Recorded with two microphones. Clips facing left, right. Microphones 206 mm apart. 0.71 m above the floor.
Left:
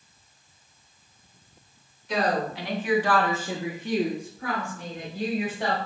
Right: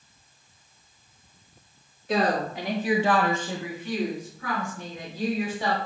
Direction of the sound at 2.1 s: 65° right (ahead or behind).